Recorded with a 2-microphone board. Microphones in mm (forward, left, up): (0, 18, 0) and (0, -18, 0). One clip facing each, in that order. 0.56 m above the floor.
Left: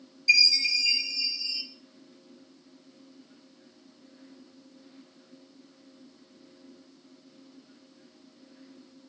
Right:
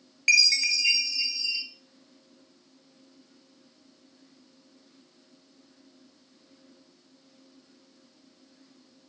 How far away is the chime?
About 2.0 m.